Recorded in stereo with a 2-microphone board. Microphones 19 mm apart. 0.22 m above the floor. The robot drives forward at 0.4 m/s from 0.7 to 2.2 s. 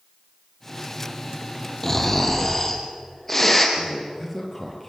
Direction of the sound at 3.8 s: 10° left (ahead or behind).